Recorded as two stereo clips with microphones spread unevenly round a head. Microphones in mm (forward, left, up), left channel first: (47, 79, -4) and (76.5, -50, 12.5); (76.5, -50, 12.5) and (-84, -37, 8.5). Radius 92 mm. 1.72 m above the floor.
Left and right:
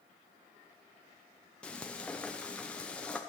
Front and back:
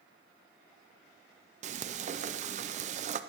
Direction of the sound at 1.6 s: 170° right.